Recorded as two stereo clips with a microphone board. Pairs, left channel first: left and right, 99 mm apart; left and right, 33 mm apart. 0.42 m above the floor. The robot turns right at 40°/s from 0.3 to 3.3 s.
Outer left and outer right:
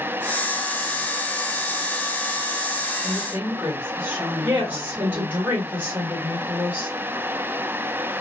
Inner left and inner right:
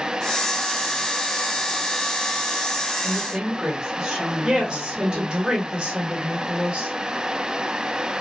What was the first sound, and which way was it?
A woman speaking, 30° right (ahead or behind).